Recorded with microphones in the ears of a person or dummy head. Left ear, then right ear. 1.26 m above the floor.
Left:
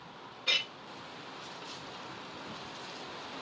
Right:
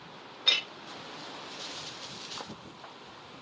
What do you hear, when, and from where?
0.5 s a clink: 45° right (ahead or behind), 0.7 m